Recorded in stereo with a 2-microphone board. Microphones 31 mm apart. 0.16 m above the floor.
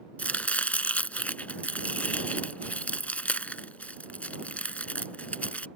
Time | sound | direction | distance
0.2 | chopping | 50° left (ahead or behind) | ?